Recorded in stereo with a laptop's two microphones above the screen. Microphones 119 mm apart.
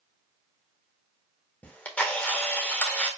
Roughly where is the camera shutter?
Centre.